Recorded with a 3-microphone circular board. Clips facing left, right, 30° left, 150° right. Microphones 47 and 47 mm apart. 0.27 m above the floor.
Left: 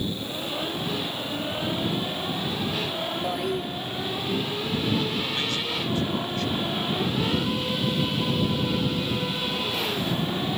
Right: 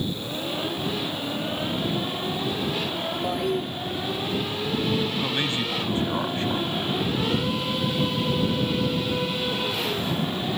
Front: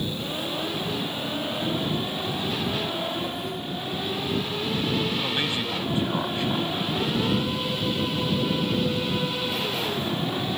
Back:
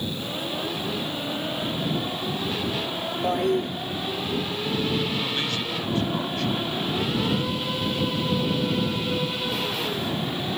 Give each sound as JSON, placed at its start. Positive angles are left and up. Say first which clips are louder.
{"t": 3.2, "sound": "a toilet flushing", "louder": "right 3 dB, back 8 dB", "azimuth_deg": 180}
{"t": 5.2, "sound": "a man speaking", "louder": "right 2 dB, front 1 dB", "azimuth_deg": -40}